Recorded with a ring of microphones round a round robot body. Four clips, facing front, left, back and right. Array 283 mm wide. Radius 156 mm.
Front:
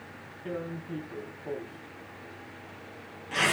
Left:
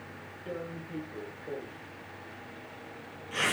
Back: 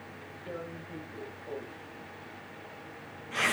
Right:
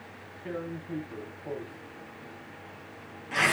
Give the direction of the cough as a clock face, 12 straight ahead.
I don't hear a cough.